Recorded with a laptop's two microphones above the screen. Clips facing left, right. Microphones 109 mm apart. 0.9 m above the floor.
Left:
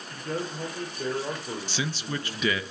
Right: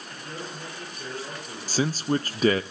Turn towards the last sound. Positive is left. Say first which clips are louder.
# right 10 dB
turn(degrees=-40)  # may be behind; listen again after turning